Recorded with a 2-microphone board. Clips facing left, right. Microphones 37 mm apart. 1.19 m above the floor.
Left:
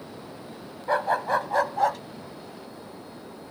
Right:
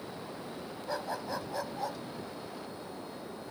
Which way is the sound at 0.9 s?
50° left (ahead or behind).